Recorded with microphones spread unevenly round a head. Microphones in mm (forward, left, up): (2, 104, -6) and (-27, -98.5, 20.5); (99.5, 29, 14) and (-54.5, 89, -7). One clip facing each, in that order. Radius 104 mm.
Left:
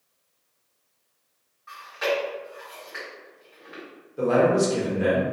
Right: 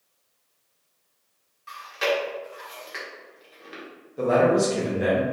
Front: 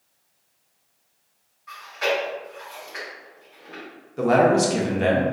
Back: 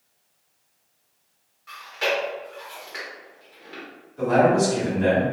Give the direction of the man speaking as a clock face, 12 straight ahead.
12 o'clock.